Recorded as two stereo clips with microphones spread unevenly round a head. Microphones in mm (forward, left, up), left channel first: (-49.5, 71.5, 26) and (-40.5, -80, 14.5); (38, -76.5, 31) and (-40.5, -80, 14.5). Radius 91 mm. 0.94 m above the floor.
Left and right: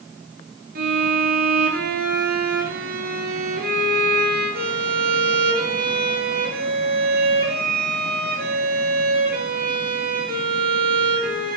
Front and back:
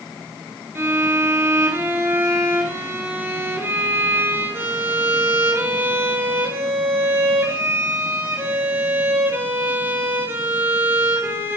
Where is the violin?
110° right, 2.5 m.